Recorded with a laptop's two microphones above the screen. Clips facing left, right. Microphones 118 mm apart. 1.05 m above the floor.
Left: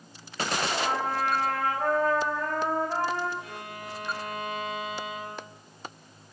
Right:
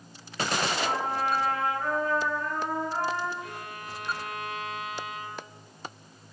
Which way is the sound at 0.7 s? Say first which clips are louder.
Left 1 dB; 75° left (ahead or behind).